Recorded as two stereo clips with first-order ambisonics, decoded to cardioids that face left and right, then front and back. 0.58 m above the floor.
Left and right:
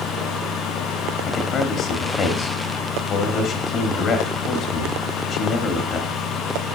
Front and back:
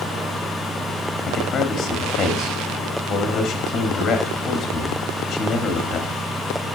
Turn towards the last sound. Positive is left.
turn(degrees=60)